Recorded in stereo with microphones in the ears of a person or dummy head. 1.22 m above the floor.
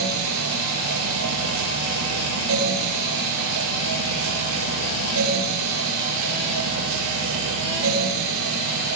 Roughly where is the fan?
Right.